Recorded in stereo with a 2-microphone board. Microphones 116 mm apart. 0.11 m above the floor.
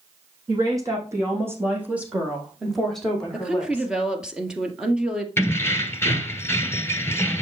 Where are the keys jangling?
20° left (ahead or behind), 1.4 m.